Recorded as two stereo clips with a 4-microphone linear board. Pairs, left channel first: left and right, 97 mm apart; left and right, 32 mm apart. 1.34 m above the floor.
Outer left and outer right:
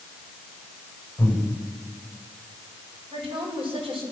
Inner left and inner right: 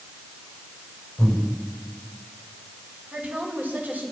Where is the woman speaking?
65° right (ahead or behind), 6.5 m.